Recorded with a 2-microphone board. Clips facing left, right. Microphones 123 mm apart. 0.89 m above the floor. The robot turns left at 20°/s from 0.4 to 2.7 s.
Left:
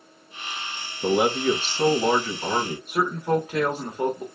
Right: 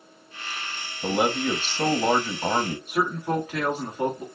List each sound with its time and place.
1.0 s a man speaking: 5° left, 1.2 m; by 2.8 s 30° right, 1.2 m
2.9 s a man speaking: 20° left (ahead or behind), 1.4 m